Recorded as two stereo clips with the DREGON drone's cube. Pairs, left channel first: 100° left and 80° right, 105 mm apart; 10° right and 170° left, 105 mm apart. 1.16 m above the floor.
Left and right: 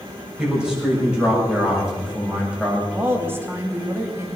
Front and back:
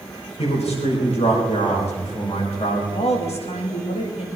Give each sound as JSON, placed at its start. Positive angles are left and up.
{"t": 0.4, "sound": "a man speaking", "azimuth_deg": 0, "distance_m": 7.0}
{"t": 2.9, "sound": "a woman speaking", "azimuth_deg": -10, "distance_m": 2.5}